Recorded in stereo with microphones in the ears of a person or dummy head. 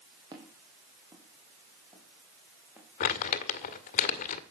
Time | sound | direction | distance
0.3 | footsteps | 30° right (ahead or behind) | 4 m
3.0 | crumpling | 40° left (ahead or behind) | 1.8 m